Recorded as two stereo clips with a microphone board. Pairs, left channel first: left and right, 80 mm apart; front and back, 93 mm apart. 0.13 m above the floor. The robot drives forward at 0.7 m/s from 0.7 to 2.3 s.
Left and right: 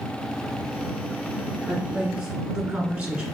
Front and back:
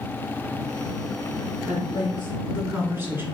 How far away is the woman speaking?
About 1.3 m.